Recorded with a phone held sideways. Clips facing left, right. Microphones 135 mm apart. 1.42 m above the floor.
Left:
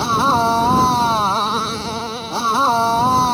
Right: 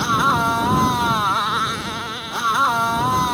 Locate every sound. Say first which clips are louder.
0.0 s a motorcycle: left 3 dB; 30° left (ahead or behind)